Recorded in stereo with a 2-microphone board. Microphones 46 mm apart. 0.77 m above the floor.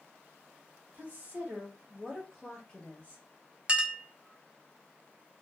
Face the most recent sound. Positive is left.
turn(degrees=-25)  # may be behind; listen again after turning